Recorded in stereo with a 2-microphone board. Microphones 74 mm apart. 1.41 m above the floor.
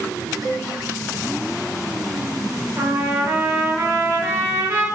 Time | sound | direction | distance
0.4 | a cowbell | 40° right (ahead or behind) | 1.7 m
2.8 | a trumpet | 35° right (ahead or behind) | 1.3 m